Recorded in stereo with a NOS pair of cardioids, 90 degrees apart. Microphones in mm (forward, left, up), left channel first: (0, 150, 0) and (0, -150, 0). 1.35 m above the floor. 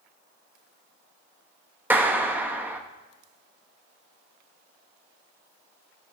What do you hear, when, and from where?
1.9 s a clap: 5° right, 1.4 m